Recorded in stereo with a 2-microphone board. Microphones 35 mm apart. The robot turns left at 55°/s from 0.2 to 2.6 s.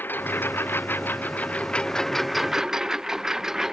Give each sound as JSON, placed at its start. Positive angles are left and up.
{"t": 0.0, "sound": "a lawn mower", "side_deg": 65}